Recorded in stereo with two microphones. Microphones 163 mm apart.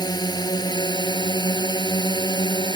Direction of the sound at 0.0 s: 25° left (ahead or behind).